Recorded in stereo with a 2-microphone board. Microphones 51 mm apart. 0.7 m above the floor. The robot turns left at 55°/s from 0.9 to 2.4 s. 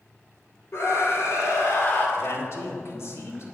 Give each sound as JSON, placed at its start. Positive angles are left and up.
{"t": 0.7, "sound": "a scream", "azimuth_deg": 105, "distance_m": 2.5}
{"t": 2.2, "sound": "a man speaking", "side_deg": 50, "distance_m": 1.8}